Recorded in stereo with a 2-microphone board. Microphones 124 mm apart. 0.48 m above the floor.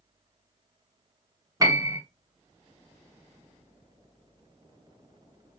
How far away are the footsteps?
I don't hear footsteps.